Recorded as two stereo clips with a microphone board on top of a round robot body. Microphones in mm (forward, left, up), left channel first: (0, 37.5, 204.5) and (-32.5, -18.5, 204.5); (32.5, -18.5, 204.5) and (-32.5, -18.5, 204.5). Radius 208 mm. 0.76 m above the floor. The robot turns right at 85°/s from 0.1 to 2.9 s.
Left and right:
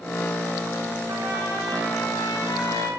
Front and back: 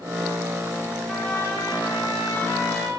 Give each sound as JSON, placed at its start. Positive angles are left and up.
{"t": 1.1, "sound": "a trumpet", "azimuth_deg": -85, "distance_m": 8.5}